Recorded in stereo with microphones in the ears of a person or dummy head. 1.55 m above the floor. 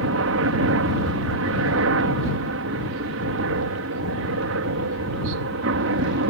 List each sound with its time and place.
0.0 s a helicopter: 65° right (ahead or behind)